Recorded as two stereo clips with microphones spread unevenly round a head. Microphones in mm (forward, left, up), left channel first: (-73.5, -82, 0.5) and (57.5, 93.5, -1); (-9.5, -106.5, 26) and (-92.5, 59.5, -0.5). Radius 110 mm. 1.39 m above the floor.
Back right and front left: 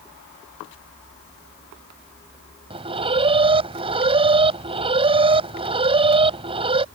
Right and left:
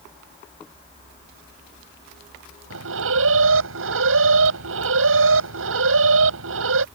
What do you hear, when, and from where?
2.7 s an alarm: 120° left